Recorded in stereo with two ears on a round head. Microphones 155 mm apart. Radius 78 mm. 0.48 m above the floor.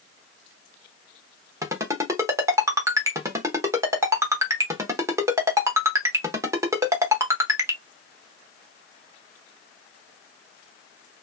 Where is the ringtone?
15° right (ahead or behind), 0.9 m.